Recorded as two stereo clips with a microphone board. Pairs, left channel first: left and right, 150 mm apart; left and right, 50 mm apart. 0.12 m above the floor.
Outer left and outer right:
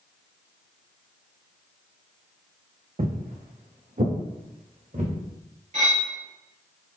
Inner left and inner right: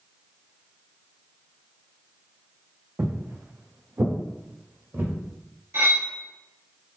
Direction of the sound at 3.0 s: 60° right (ahead or behind).